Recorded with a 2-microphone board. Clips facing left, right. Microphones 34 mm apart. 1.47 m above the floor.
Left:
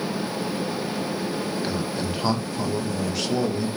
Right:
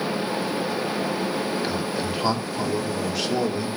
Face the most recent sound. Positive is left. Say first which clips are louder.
# right 1 dB
turn(degrees=-5)  # may be behind; listen again after turning